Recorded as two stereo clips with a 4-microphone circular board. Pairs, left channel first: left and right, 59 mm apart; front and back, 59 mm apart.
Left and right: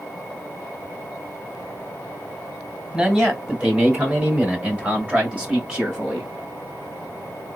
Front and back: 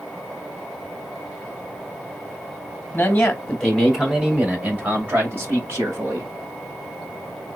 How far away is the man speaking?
About 1.6 m.